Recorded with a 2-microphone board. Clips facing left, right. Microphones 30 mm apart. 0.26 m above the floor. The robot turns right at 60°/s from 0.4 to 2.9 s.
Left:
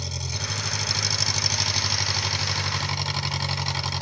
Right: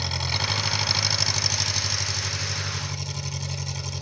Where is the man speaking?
I don't hear a man speaking.